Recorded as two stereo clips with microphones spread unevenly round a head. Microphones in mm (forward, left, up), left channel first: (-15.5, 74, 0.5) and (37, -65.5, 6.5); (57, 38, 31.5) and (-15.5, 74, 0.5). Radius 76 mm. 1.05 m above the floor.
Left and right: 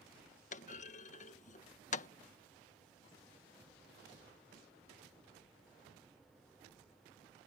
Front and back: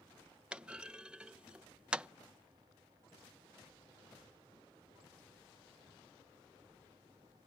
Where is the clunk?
100° left.